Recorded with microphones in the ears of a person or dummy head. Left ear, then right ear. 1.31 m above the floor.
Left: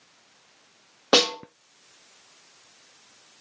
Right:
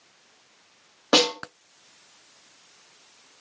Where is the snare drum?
10° left (ahead or behind), 1.2 m.